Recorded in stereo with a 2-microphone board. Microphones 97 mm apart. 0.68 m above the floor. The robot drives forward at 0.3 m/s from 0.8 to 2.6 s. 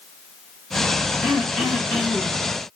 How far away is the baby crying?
I don't hear a baby crying.